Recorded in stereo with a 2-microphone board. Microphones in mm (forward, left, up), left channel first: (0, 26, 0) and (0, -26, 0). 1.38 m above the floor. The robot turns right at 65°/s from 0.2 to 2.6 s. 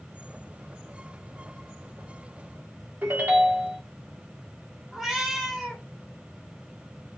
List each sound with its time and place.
3.0 s a ringtone: 40° right (ahead or behind), 1.3 m
4.9 s a cat meowing: 10° right (ahead or behind), 1.2 m